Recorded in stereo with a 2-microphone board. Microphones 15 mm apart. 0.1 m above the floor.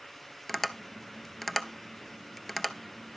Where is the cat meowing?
No cat meowing in this recording.